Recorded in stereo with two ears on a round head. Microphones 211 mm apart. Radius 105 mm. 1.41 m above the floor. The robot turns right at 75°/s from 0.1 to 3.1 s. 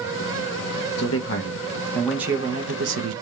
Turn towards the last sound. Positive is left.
turn(degrees=-105)